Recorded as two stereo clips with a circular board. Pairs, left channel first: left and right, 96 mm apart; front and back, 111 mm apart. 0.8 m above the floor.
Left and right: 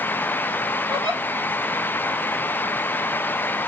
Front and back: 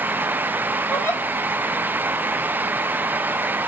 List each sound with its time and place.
0.9 s a giggle: 70° right, 4 m